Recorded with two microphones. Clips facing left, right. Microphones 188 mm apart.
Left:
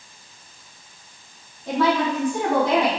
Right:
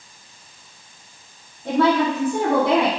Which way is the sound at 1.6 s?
60° right (ahead or behind).